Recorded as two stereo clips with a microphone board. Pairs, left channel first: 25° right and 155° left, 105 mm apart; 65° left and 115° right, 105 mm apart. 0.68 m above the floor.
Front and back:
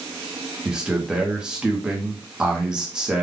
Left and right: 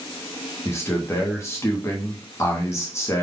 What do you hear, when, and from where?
0.7 s a man speaking: 85° left, 0.8 m